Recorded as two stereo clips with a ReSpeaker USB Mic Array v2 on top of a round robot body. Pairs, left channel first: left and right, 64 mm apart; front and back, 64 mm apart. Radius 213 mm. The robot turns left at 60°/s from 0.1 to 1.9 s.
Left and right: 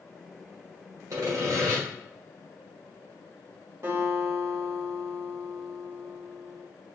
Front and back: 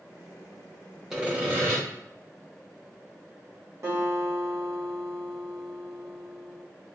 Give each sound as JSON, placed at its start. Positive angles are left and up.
{"t": 1.1, "sound": "sawing", "azimuth_deg": -100, "distance_m": 1.9}
{"t": 3.8, "sound": "a guitar", "azimuth_deg": -140, "distance_m": 1.6}